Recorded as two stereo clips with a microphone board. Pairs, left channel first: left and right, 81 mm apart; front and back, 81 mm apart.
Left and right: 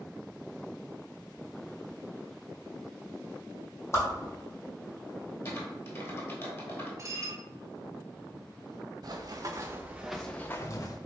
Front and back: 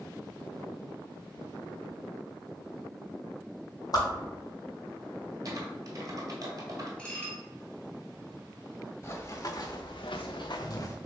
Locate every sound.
3.9 s a whoosh: 35° left, 1.4 m
5.5 s typing on a keyboard: 140° left, 1.1 m
7.0 s dishes clattering: 70° right, 1.4 m
9.0 s running footsteps: 55° right, 1.1 m; by 10.9 s 50° left, 0.8 m